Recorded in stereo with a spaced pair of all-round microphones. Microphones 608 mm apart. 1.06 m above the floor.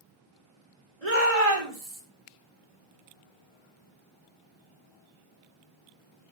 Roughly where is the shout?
Right.